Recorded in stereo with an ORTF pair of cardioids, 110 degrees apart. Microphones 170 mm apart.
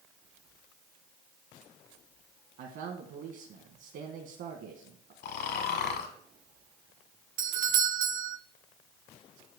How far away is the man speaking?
About 1.4 m.